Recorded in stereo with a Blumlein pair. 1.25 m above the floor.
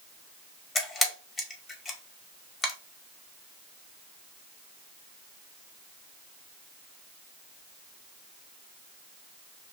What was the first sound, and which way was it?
A camera shutter, 15° left.